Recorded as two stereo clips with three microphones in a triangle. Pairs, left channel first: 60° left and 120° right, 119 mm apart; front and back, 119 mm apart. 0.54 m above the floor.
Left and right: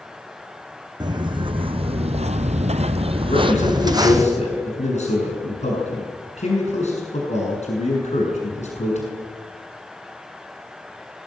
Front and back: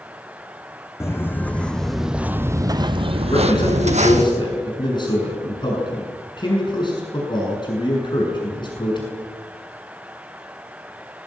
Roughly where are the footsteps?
Right.